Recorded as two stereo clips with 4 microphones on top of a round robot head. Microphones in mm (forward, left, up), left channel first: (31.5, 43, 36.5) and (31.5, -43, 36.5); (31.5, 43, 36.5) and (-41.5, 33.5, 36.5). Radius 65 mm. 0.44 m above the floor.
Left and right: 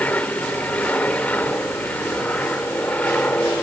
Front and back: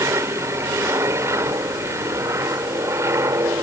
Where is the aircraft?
160° left.